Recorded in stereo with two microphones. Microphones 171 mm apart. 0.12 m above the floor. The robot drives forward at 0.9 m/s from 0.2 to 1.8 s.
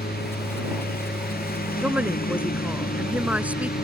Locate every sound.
0.0 s a lawn mower: 65° left (ahead or behind); by 3.8 s 60° left (ahead or behind)
1.8 s a woman speaking: 10° right (ahead or behind)